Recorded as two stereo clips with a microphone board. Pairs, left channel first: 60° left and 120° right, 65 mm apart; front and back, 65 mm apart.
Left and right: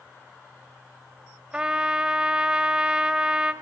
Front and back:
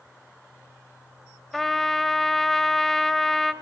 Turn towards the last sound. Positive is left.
turn(degrees=-80)